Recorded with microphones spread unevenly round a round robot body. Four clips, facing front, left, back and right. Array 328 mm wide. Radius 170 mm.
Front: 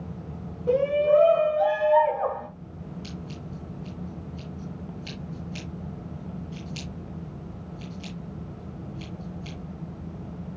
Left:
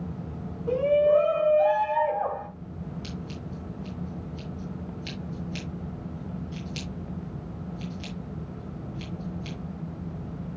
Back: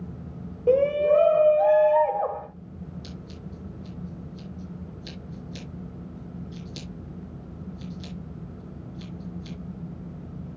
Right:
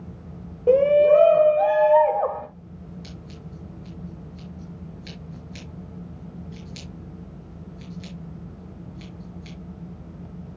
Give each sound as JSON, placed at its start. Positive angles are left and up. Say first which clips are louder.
{"t": 0.7, "sound": "a shout", "louder": "right 6 dB, back 1 dB", "azimuth_deg": -120, "distance_m": 1.9}
{"t": 3.0, "sound": "scissors", "louder": "left 4 dB, front 2 dB", "azimuth_deg": 155, "distance_m": 5.5}